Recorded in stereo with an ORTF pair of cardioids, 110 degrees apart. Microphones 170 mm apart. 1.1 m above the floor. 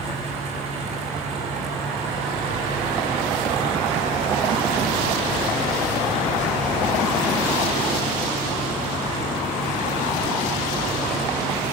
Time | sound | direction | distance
0.0 | a fan | 45° right | 5.5 m